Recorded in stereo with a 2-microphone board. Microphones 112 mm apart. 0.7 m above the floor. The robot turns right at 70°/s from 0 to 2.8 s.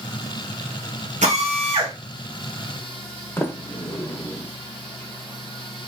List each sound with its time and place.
1.2 s a drill: 85° right, 3 m; by 1.9 s 35° right, 3 m
3.4 s a sliding door: 20° left (ahead or behind), 0.7 m